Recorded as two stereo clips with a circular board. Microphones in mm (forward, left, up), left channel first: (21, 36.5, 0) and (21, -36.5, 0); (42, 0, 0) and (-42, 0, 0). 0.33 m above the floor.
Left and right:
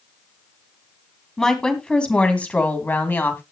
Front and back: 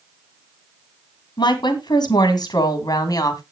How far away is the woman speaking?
About 2.5 m.